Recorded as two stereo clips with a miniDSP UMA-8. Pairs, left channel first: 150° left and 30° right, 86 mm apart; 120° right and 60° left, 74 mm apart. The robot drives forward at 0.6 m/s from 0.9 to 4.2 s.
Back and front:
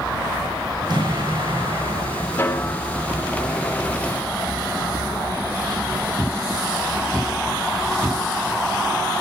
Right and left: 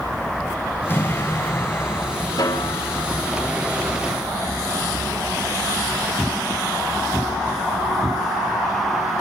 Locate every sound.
0.9 s an explosion: 60° right, 9.5 m; by 2.3 s 65° right, 9.5 m
2.4 s a snare drum: 140° right, 4.5 m; by 3.0 s 145° right, 5 m